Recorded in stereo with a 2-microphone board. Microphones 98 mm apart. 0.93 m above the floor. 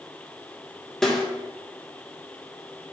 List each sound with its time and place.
1.0 s a snare drum: 5° left (ahead or behind), 0.9 m